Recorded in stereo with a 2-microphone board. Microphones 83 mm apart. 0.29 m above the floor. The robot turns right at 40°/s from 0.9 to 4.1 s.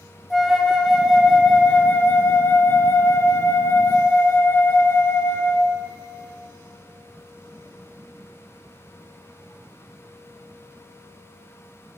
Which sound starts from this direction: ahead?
A flute, at 0.3 s.